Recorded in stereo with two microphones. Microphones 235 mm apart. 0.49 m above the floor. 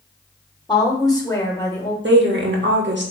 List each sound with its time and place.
0.7 s a woman speaking: 20° left (ahead or behind), 1.0 m; by 1.9 s 10° left (ahead or behind), 2 m
2.0 s a woman speaking: 50° right (ahead or behind), 1.1 m